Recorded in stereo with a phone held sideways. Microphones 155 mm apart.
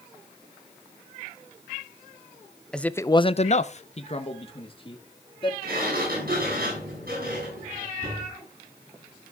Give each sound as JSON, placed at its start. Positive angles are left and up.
{"t": 2.7, "sound": "a man speaking", "side_deg": 5, "distance_m": 0.8}
{"t": 5.6, "sound": "a sliding door", "side_deg": -75, "distance_m": 9.0}